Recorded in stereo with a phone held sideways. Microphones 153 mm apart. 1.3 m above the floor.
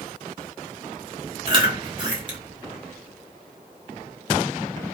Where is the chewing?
30° right (ahead or behind), 1.4 m.